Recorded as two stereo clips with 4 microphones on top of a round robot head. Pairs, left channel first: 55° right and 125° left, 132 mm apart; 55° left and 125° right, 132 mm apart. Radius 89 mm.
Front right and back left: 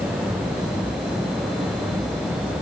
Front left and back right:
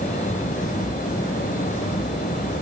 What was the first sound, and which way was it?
Only background noise.